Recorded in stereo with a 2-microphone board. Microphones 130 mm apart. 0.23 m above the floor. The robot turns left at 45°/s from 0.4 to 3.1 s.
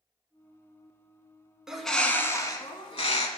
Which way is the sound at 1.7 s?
175° right.